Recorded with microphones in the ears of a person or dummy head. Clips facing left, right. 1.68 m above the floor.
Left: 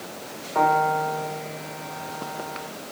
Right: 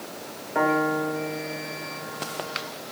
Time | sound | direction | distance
0.6 | a piano | 15° right (ahead or behind) | 1.8 m